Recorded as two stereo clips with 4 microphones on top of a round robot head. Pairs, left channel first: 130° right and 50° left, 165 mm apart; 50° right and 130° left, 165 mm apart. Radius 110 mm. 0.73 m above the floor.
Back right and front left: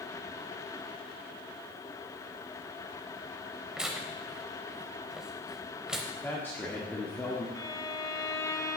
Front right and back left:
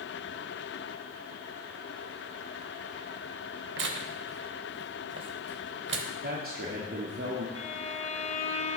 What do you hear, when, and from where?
3.8 s tearing paper: 135° left, 0.6 m
6.2 s a man speaking: 155° left, 1.6 m
7.5 s a violin: 70° right, 1.2 m